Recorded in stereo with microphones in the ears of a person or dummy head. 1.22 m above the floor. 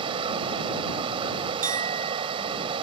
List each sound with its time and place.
0.0 s running water: 35° right (ahead or behind)
1.6 s a clink: 40° right (ahead or behind)